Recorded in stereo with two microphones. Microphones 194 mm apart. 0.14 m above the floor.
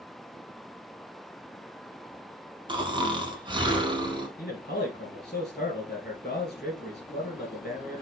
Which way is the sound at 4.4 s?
50° left (ahead or behind).